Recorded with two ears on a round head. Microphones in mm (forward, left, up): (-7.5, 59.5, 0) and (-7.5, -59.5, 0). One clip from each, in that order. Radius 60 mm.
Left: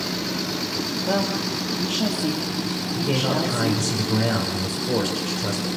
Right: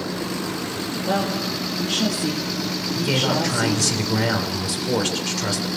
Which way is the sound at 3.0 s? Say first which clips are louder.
Right 2 dB; 45° right (ahead or behind).